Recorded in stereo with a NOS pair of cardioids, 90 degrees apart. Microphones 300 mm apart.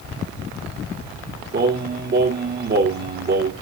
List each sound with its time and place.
1.5 s singing: 35° right, 2 m